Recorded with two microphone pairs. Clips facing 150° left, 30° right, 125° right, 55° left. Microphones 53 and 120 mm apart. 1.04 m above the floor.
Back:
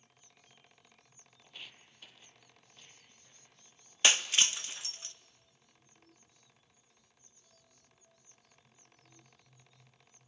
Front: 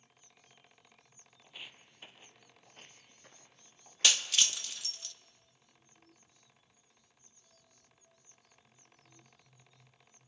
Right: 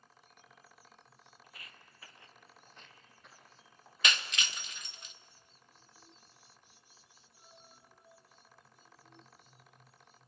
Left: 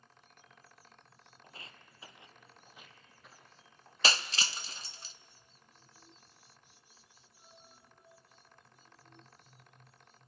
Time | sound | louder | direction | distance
1.4 | footsteps | front 1 dB, left 5 dB | 40° left | 1.1 m
4.0 | breaking glass | back 2 dB, left 2 dB | 95° left | 0.5 m